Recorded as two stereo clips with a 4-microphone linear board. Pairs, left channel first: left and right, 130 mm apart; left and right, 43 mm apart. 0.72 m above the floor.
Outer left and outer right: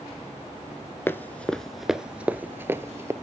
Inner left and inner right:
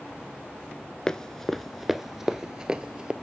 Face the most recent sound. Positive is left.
turn(degrees=-20)  # may be behind; listen again after turning